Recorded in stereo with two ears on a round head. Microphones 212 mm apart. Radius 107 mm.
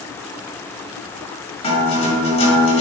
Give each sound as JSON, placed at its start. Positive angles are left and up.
{"t": 1.6, "sound": "a guitar", "side_deg": 25, "distance_m": 3.0}